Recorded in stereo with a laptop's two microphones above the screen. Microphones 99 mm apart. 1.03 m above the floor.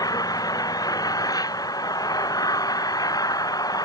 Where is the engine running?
40° left (ahead or behind).